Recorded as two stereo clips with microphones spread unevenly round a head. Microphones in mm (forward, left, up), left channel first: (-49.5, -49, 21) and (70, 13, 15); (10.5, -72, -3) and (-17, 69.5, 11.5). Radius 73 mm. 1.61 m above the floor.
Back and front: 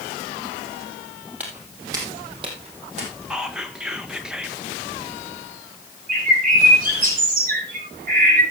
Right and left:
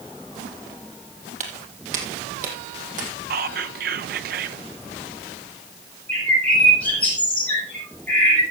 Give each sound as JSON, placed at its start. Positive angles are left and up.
{"t": 1.4, "sound": "footsteps", "azimuth_deg": 105, "distance_m": 2.5}
{"t": 3.3, "sound": "whispering", "azimuth_deg": 115, "distance_m": 1.2}
{"t": 6.1, "sound": "a bird", "azimuth_deg": 0, "distance_m": 6.5}